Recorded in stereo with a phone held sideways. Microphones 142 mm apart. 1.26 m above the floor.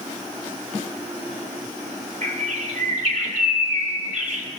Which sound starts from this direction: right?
A bird, at 2.2 s.